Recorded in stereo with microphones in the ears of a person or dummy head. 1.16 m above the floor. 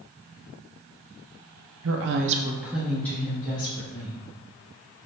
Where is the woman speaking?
65° right (ahead or behind), 0.7 m; by 4.2 s 20° left (ahead or behind), 2.5 m.